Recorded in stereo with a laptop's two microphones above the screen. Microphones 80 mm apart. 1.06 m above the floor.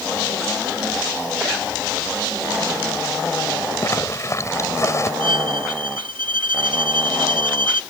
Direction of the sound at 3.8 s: 35° left (ahead or behind).